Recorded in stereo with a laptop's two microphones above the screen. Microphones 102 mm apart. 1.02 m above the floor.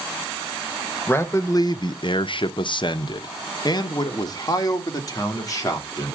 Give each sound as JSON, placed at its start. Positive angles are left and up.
{"t": 1.1, "sound": "a man speaking", "side_deg": 20, "distance_m": 0.7}